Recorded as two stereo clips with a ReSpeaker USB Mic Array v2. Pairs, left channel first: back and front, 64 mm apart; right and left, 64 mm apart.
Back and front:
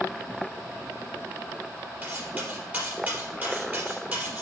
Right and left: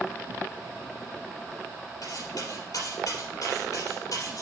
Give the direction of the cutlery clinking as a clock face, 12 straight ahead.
2 o'clock.